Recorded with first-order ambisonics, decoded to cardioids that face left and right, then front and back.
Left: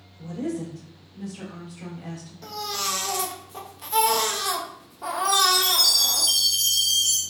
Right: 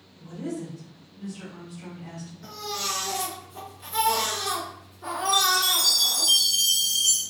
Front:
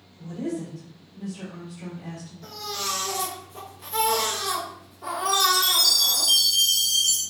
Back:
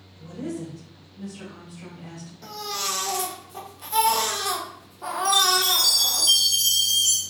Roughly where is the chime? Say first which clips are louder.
Left 1 dB, back 1 dB; behind left.